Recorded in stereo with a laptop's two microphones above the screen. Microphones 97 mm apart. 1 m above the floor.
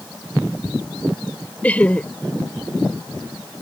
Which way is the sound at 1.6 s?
15° left (ahead or behind).